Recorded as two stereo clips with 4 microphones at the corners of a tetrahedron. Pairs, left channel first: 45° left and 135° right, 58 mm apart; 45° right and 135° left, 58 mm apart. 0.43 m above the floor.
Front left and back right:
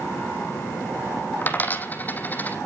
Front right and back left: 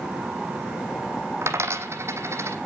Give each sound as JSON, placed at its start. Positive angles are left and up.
{"t": 1.4, "sound": "a dropped coin", "azimuth_deg": 100, "distance_m": 1.3}